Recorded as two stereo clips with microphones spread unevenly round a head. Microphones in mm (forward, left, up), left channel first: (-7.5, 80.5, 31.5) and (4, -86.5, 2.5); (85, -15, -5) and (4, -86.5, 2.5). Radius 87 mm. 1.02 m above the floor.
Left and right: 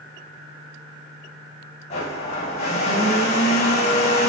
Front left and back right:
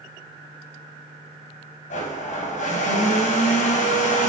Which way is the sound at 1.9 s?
35° left.